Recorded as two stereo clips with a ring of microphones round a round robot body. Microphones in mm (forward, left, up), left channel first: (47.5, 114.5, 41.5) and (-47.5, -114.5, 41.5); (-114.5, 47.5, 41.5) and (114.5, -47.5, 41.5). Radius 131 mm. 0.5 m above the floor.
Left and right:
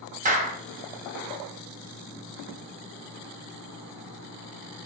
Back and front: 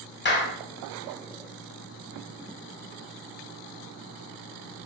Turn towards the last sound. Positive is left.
turn(degrees=-165)